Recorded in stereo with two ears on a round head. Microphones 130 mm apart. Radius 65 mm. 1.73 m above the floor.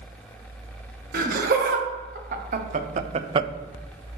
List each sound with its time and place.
1.1 s laughter: 65° right (ahead or behind), 1.8 m; by 3.5 s 30° right (ahead or behind), 0.5 m